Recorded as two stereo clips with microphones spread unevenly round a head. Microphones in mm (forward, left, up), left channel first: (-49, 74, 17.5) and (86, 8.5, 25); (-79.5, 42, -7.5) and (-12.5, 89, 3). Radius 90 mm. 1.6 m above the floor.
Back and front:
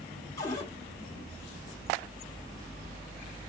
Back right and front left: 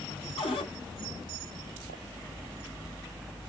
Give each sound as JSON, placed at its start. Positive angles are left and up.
{"t": 0.4, "sound": "a cupboard door", "azimuth_deg": -130, "distance_m": 0.9}